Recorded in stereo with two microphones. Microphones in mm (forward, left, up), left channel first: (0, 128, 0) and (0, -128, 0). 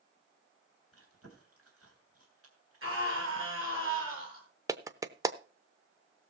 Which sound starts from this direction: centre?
A clap, at 4.7 s.